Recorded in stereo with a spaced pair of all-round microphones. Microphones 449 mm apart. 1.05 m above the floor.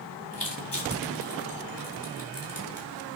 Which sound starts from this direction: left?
Crushing, at 0.3 s.